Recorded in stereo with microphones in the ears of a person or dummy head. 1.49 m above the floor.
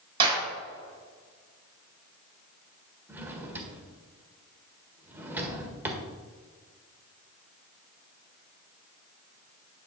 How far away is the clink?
No clink in this recording.